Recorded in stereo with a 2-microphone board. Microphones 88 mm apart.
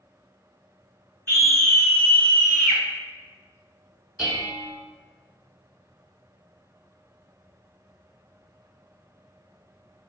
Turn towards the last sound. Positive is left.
turn(degrees=-10)  # may be behind; listen again after turning